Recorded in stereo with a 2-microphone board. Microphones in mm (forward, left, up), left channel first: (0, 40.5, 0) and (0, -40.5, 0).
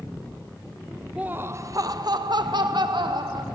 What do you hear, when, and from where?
1.2 s laughter: 15° right (ahead or behind), 0.5 m; by 3.5 s 80° right, 1.5 m